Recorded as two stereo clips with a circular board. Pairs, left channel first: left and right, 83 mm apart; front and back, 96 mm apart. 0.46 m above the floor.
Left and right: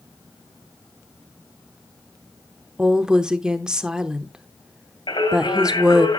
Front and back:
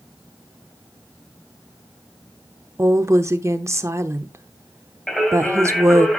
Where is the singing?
85° left, 2.5 m.